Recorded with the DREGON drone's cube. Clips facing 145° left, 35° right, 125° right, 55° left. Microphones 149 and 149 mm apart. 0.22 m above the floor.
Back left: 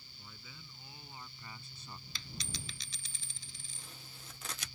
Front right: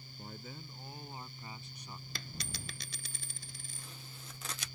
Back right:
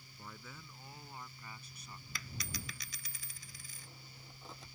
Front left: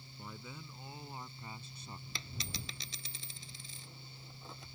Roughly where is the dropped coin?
Ahead.